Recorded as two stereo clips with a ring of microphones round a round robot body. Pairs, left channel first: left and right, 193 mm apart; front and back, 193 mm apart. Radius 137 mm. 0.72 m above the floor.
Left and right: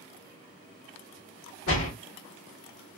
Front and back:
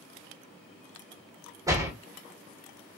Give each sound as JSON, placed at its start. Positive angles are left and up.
{"t": 1.7, "sound": "a door slam", "azimuth_deg": 105, "distance_m": 1.6}